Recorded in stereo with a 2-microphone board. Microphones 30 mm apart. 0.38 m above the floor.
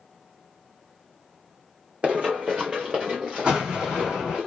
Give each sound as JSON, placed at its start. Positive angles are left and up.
{"t": 2.0, "sound": "running footsteps", "side_deg": -40, "distance_m": 1.1}
{"t": 3.5, "sound": "an explosion", "side_deg": -40, "distance_m": 4.5}